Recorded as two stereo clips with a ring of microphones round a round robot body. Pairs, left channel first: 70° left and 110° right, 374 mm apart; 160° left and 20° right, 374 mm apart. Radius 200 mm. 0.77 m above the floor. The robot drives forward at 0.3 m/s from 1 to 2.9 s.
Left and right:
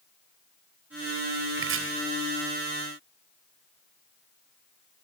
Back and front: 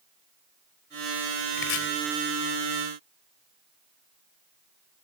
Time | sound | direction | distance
1.6 | chopping | 170° right | 3.5 m